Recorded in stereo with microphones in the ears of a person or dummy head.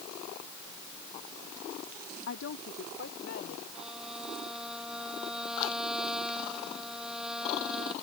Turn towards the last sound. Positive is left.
turn(degrees=-5)  # may be behind; listen again after turning